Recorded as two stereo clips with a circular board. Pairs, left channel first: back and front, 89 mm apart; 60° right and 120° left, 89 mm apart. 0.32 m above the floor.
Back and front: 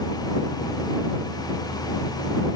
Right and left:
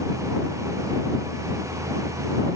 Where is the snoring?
I don't hear snoring.